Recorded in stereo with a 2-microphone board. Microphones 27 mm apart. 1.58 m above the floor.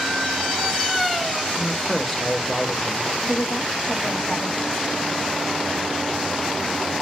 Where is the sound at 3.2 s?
60° left (ahead or behind), 1.4 m.